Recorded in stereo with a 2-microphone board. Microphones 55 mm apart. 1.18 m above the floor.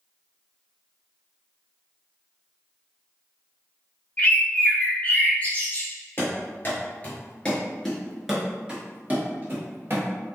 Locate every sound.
4.2 s a bird: 25° left (ahead or behind), 0.6 m
6.2 s running footsteps: 40° left (ahead or behind), 1.6 m; by 10.1 s 45° right (ahead or behind), 1.6 m